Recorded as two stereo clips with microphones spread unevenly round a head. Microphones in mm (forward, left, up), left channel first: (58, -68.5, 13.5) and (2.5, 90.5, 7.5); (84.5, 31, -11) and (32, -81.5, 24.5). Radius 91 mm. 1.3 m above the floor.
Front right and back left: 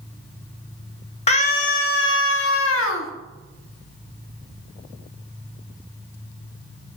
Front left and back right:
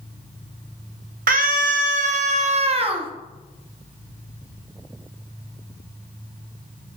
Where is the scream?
130° right, 1.7 m; by 3.1 s 70° right, 1.9 m.